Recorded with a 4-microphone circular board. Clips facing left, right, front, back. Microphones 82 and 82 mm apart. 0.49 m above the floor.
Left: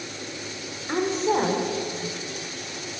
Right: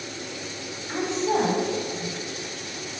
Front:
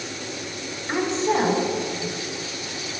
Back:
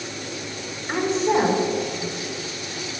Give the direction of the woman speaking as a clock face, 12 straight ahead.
9 o'clock.